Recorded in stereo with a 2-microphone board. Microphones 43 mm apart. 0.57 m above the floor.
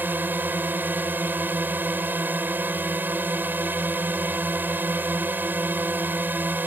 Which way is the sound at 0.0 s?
50° right (ahead or behind).